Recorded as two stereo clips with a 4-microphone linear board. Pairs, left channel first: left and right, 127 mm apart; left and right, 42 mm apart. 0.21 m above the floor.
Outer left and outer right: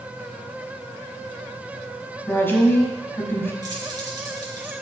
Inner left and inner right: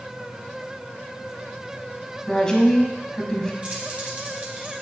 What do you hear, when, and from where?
2.3 s a woman speaking: 15° left (ahead or behind), 1.4 m
3.6 s keys jangling: 30° right (ahead or behind), 2.5 m